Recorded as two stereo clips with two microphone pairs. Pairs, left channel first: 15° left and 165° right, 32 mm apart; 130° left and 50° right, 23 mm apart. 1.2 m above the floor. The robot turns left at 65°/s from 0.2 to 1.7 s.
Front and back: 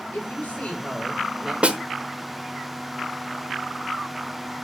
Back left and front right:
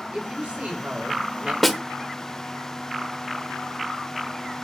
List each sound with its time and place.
0.1 s a woman speaking: 5° right, 5.5 m; by 1.5 s 90° right, 5.5 m
1.6 s a snare drum: 140° right, 1.1 m; by 1.8 s 145° right, 1.1 m